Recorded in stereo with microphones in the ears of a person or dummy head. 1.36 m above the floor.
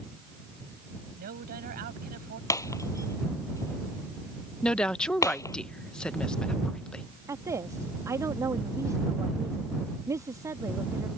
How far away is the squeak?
No squeak in this recording.